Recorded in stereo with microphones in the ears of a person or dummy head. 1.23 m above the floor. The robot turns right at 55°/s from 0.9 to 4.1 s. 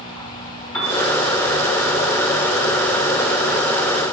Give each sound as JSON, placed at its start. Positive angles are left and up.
{"t": 0.7, "sound": "a piano", "side_deg": 10, "distance_m": 0.7}